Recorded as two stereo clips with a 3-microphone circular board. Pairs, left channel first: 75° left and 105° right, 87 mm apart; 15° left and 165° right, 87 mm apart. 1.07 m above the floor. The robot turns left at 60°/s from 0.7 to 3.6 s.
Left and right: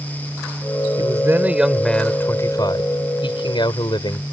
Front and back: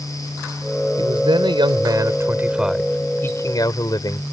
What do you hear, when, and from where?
1.0 s a man speaking: 150° right; by 4.2 s 55° left